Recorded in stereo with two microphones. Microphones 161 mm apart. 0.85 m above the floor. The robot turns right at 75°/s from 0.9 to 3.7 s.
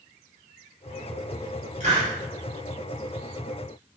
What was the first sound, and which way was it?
A hiss, 50° right (ahead or behind).